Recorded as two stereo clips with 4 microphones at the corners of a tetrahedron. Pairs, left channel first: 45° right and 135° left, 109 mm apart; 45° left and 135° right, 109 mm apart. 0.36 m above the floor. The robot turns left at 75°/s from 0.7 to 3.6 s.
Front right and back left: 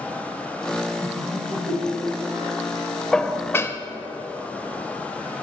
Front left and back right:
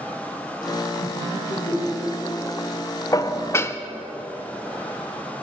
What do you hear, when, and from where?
1.0 s laughter: 60° left, 1.4 m; by 2.6 s 60° right, 1.4 m
3.1 s dishes clattering: 35° left, 0.5 m; by 3.8 s straight ahead, 0.5 m